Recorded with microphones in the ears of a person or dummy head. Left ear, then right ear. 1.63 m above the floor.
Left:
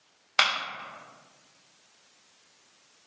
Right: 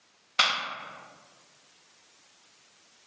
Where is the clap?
30° left (ahead or behind), 0.6 m.